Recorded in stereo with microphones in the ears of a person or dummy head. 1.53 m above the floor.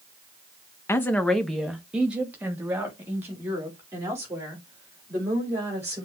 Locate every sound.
0.9 s a woman speaking: 15° left (ahead or behind), 0.5 m; by 6.0 s 15° right (ahead or behind), 3.5 m